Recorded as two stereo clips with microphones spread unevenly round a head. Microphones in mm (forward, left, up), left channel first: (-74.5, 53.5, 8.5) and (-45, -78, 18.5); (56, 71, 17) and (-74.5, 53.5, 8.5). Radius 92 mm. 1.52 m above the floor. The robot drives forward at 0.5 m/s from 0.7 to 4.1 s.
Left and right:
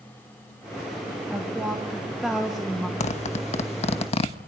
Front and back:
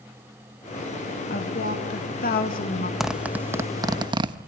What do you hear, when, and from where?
1.3 s a woman speaking: 10° left, 2.5 m
3.0 s a zipper: 95° left, 0.9 m; by 4.4 s 140° left, 1.1 m